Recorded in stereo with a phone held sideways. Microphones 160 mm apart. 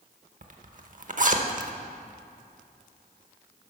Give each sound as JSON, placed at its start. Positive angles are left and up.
{"t": 0.4, "sound": "a zipper", "side_deg": -55, "distance_m": 0.8}